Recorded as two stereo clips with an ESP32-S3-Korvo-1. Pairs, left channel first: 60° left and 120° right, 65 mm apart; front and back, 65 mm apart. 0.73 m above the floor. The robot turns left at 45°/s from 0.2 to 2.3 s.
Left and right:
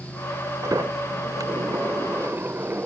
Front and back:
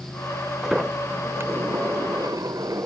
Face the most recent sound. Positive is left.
turn(degrees=-175)